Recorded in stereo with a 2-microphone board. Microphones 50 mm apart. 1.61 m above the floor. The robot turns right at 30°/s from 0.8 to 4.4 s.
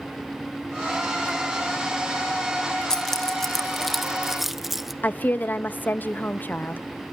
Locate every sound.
2.9 s keys jangling: 10° left (ahead or behind), 0.6 m; by 4.9 s 5° right (ahead or behind), 0.6 m
5.0 s a woman speaking: 35° left (ahead or behind), 0.6 m